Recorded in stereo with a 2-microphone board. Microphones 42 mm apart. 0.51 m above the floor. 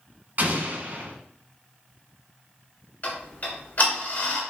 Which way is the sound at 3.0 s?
45° left (ahead or behind).